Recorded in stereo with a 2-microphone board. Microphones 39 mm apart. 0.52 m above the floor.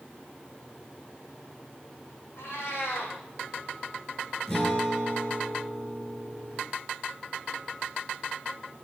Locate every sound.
2.4 s a cat meowing: 80° left, 3.5 m
4.5 s a guitar: 20° left (ahead or behind), 8 m